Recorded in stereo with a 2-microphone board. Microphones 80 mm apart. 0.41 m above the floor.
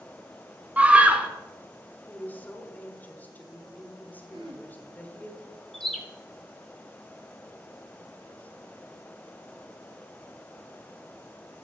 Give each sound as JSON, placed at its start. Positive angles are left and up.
{"t": 0.8, "sound": "a scream", "side_deg": -15, "distance_m": 0.8}
{"t": 2.1, "sound": "a woman speaking", "side_deg": 20, "distance_m": 1.2}
{"t": 4.3, "sound": "throat clearing", "side_deg": -70, "distance_m": 1.3}
{"t": 5.7, "sound": "a bird", "side_deg": 0, "distance_m": 1.1}